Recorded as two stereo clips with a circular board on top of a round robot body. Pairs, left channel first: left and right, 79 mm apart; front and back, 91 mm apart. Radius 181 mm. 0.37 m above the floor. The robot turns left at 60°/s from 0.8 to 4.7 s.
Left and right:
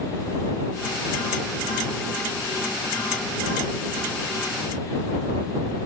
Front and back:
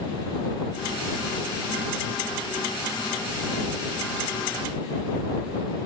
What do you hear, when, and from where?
Only background noise.